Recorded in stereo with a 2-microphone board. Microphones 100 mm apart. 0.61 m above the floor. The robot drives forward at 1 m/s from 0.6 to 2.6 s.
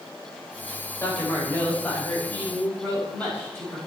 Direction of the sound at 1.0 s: 25° left (ahead or behind).